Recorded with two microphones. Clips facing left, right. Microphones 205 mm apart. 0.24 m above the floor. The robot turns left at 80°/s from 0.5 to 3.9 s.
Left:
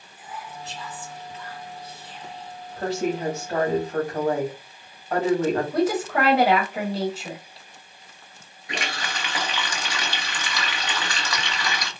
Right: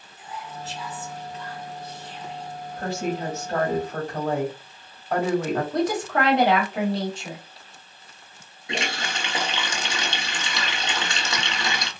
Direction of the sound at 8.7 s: 25° right (ahead or behind).